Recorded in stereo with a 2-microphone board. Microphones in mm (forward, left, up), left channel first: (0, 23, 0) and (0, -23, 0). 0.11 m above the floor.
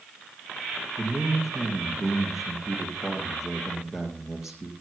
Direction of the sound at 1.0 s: 5° right (ahead or behind).